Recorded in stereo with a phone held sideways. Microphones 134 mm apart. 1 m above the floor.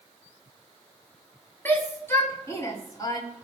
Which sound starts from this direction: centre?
A shout, at 1.6 s.